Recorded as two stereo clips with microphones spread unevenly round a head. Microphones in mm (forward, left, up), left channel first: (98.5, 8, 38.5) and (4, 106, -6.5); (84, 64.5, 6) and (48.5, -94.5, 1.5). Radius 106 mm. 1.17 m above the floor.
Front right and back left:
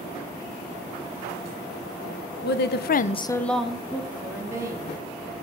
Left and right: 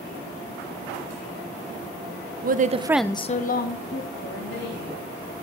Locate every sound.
2.4 s a woman speaking: 70° right, 0.9 m; by 4.9 s 65° left, 2.5 m